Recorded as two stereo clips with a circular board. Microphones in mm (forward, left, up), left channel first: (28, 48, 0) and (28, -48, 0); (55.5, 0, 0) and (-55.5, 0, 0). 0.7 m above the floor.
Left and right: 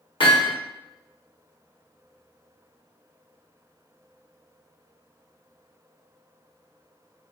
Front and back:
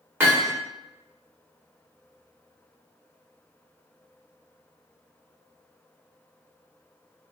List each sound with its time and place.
0.2 s hammering: 110° left, 1.1 m